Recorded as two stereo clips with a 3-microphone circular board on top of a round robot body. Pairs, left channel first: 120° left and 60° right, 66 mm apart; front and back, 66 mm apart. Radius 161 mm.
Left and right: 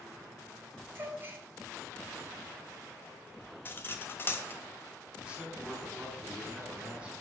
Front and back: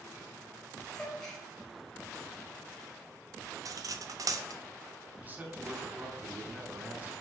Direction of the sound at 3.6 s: 170° left.